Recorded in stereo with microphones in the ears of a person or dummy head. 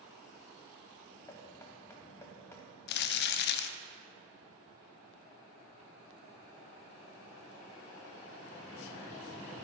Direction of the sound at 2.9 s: 60° left (ahead or behind).